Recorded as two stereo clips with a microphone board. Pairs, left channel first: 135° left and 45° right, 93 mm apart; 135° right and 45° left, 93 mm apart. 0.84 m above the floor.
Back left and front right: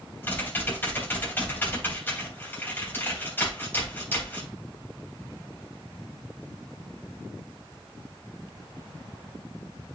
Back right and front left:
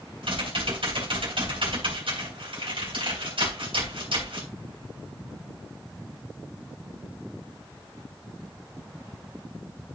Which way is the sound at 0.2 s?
65° left.